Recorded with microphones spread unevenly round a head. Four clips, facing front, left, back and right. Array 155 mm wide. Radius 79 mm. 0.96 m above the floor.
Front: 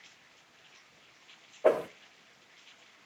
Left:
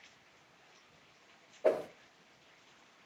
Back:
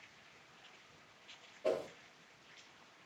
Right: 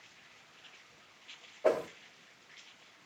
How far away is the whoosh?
About 0.5 m.